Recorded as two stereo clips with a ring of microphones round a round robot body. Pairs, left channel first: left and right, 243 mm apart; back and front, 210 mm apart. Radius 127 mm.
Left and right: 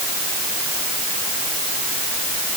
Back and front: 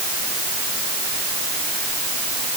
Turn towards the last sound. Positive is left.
No sound to turn to.